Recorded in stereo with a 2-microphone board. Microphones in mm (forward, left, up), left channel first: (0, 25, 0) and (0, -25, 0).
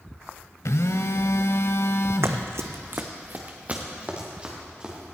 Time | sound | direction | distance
0.7 | a phone buzzing | 75° left (ahead or behind) | 0.6 m
2.2 | running footsteps | 65° right (ahead or behind) | 1.0 m